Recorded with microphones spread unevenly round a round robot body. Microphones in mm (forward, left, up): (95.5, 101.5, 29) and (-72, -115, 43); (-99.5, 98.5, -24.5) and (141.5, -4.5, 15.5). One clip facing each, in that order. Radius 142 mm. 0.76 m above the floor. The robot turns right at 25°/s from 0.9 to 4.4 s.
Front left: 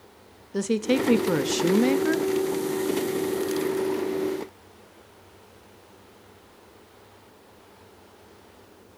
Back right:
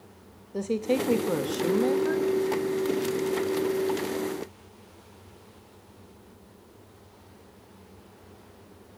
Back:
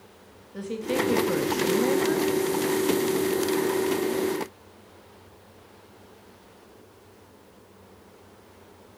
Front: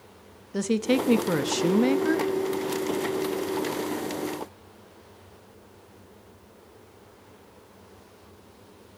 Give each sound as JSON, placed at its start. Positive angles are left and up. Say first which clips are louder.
{"t": 0.5, "sound": "a woman speaking", "louder": "front left 3 dB, front 5 dB", "azimuth_deg": -5, "distance_m": 0.7}